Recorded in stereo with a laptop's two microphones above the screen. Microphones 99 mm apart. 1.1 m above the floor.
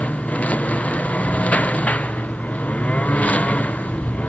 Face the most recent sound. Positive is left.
turn(degrees=15)  # may be behind; listen again after turning